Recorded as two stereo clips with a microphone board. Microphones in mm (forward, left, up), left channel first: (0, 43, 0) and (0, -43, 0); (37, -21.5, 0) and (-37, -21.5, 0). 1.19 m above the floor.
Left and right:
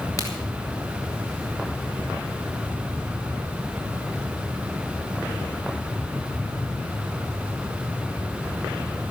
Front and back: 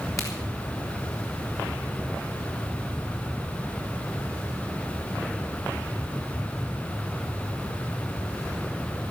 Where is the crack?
45° left, 4 m.